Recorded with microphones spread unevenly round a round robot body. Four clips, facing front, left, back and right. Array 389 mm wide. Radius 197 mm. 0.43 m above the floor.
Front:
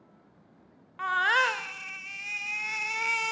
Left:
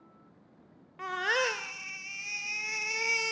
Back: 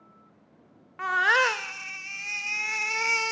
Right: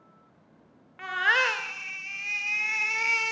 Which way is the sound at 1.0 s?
135° left.